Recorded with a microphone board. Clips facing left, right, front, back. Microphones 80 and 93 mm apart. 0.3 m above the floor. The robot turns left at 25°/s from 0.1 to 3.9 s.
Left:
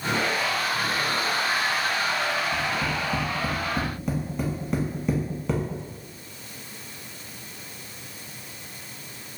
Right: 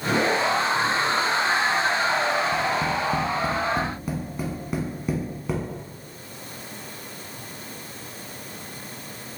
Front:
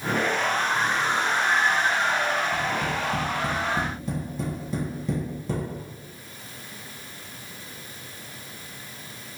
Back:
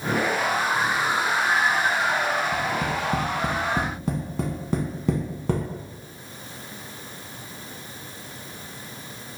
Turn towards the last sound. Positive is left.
turn(degrees=-175)